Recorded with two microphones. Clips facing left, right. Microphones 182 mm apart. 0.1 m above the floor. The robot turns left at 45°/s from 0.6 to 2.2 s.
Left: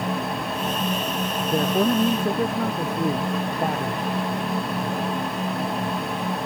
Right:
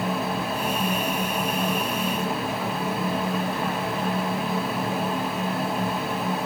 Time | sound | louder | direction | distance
1.5 | a man speaking | left 6 dB | 85° left | ?